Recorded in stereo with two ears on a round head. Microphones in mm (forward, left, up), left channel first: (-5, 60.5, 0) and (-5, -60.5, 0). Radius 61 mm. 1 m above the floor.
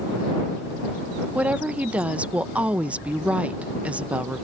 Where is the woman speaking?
10° right (ahead or behind).